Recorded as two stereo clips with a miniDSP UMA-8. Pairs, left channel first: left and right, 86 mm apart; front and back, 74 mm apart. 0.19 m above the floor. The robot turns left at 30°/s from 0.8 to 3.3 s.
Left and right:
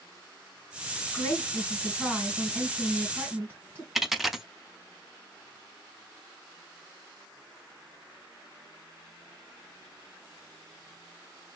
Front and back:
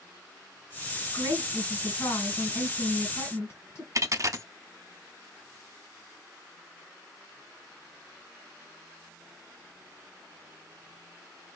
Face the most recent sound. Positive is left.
turn(degrees=-175)